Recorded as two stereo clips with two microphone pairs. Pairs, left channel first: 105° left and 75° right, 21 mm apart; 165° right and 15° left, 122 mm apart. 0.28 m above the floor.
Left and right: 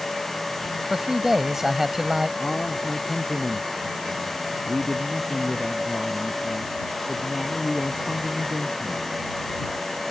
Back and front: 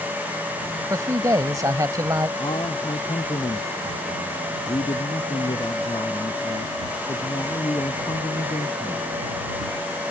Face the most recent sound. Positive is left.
turn(degrees=150)